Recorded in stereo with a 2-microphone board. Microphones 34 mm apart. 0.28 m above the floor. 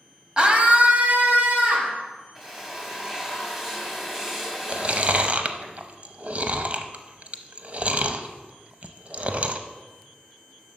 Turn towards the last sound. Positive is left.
turn(degrees=-40)  # may be behind; listen again after turning